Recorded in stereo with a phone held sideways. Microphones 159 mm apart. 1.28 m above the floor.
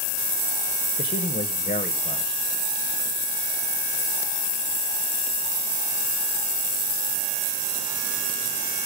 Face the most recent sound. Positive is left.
turn(degrees=70)  # may be behind; listen again after turning